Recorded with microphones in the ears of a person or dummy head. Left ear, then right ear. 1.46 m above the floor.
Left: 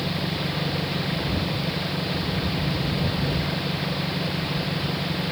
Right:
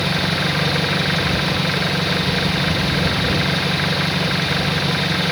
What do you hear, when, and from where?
0.0 s an engine running: 55° right (ahead or behind)